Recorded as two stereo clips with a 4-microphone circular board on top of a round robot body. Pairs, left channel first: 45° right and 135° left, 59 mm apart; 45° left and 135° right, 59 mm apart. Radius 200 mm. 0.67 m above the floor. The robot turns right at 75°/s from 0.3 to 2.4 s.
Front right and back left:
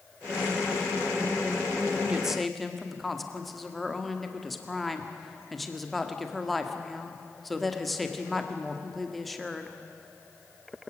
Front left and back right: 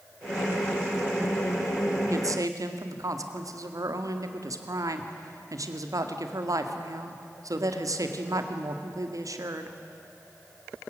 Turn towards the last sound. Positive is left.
turn(degrees=-135)